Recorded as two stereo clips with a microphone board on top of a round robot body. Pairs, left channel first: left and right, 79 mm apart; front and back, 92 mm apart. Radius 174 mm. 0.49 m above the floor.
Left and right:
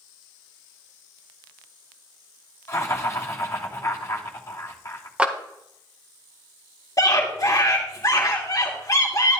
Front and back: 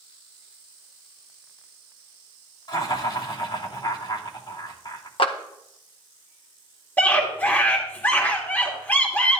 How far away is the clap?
About 1.6 m.